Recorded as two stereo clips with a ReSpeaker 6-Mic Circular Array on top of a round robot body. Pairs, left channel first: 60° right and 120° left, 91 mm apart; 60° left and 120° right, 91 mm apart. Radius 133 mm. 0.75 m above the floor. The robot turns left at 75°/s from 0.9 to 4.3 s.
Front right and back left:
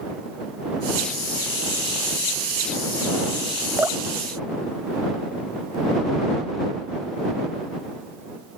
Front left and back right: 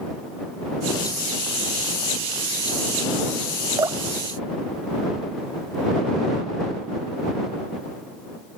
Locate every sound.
3.8 s dripping: 170° right; by 5.8 s 155° left